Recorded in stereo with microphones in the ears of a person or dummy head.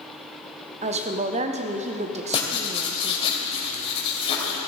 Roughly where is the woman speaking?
Right.